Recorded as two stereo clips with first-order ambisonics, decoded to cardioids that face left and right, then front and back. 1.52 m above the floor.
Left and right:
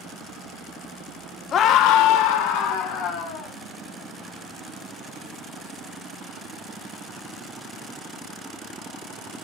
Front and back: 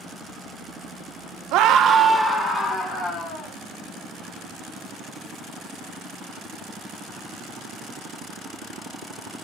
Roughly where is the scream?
Behind left.